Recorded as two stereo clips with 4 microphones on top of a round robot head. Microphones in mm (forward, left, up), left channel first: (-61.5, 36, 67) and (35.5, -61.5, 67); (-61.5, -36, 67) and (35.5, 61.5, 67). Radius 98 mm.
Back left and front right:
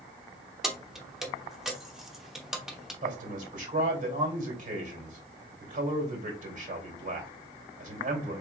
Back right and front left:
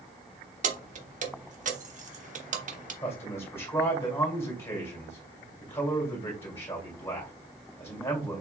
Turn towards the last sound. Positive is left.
turn(degrees=-60)